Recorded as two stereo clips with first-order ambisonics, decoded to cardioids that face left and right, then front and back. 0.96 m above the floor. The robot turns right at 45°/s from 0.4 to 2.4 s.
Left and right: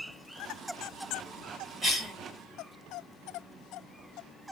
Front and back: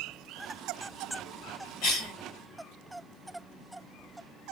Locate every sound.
1.8 s a cough: 15° right, 1.8 m; by 2.1 s straight ahead, 1.8 m